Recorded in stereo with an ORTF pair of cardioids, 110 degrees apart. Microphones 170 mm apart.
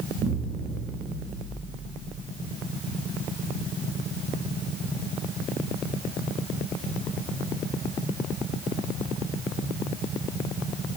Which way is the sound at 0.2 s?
55° right.